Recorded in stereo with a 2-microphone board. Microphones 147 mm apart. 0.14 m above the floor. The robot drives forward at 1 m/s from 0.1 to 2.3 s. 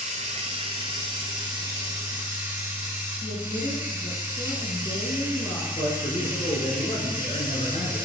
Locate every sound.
0.0 s running water: 45° right (ahead or behind), 1.3 m; by 8.1 s 15° right (ahead or behind), 3 m
3.2 s a woman speaking: 35° left (ahead or behind), 1.4 m
5.8 s a man speaking: 45° left (ahead or behind), 1.6 m